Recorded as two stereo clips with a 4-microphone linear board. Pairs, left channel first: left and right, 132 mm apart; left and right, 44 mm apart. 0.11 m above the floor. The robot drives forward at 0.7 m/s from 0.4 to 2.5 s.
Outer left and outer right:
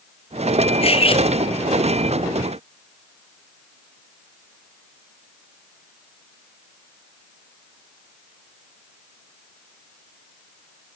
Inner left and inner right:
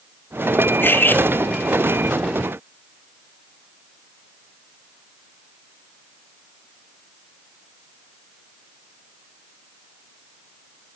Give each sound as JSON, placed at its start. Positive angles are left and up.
{"t": 0.8, "sound": "cutlery clinking", "side_deg": 50, "distance_m": 1.2}